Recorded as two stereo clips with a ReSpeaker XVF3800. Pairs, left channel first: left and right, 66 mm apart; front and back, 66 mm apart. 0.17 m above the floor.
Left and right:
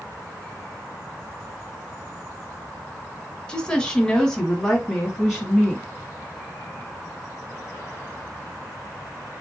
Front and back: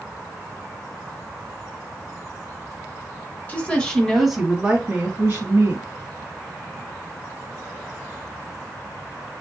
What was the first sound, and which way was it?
A woman speaking, 30° left.